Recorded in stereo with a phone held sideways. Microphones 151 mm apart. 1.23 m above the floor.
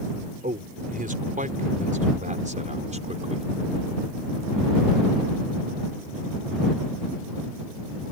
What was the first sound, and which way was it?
A man speaking, 70° right (ahead or behind).